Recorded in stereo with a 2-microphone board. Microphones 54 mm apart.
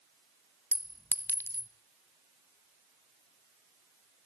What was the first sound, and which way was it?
A clink, 40° left (ahead or behind).